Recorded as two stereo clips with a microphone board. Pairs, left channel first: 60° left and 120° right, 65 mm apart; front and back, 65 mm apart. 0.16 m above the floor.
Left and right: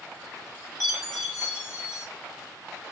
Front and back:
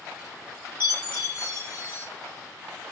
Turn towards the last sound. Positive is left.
turn(degrees=110)